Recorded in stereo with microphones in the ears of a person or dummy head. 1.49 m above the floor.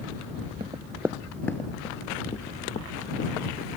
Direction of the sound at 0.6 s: 25° right (ahead or behind).